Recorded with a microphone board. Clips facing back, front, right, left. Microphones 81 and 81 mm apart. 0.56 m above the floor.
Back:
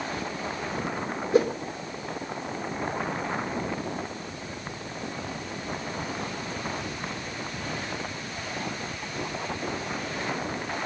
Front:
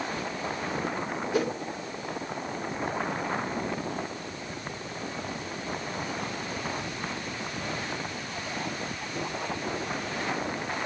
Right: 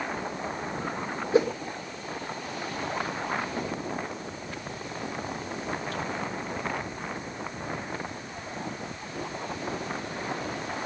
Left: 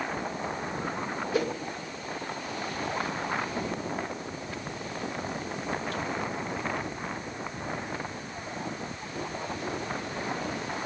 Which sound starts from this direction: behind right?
A whoosh, at 1.3 s.